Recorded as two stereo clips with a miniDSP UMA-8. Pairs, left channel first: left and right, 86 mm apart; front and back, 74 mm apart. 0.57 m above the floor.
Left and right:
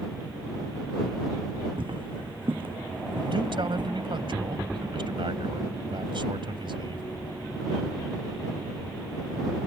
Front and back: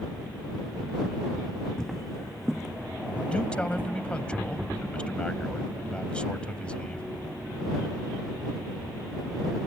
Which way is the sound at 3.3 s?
75° right.